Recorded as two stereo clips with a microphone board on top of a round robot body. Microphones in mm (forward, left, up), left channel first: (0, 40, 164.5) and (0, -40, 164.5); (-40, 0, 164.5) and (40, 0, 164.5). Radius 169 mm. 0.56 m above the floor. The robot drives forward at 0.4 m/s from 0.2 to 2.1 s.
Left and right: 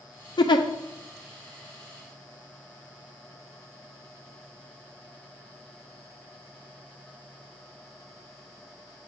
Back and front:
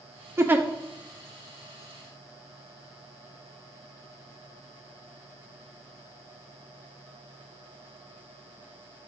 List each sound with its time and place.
0.4 s a giggle: 60° left, 0.5 m; by 0.7 s 70° left, 0.5 m